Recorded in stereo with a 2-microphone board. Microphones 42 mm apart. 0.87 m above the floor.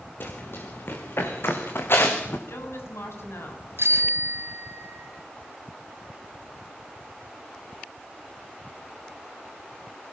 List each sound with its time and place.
0.2 s running footsteps: 60° left (ahead or behind), 5.5 m; by 2.4 s 70° left (ahead or behind), 4.5 m
2.5 s a woman speaking: 80° left, 7 m
3.8 s a bicycle bell: 75° right (ahead or behind), 2.5 m